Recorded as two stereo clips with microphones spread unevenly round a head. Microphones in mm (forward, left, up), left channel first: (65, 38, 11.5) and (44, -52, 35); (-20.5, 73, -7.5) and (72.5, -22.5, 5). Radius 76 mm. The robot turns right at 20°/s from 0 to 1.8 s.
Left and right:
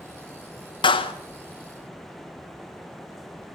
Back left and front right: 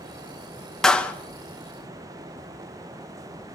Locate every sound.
0.8 s a clap: 45° left, 1.8 m; by 1.1 s 55° left, 1.8 m